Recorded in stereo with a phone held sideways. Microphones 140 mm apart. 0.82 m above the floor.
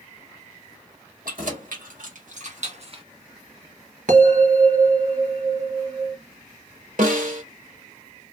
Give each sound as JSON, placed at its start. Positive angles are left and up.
{"t": 1.2, "sound": "keys jangling", "side_deg": -75, "distance_m": 1.6}
{"t": 4.1, "sound": "a bell", "side_deg": -75, "distance_m": 1.7}
{"t": 7.0, "sound": "a snare drum", "side_deg": -70, "distance_m": 1.1}